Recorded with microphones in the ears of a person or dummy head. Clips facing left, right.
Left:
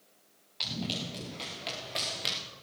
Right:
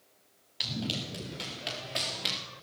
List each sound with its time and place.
0.6 s running footsteps: 10° right (ahead or behind), 6.5 m; by 2.4 s centre (ahead or behind), 4 m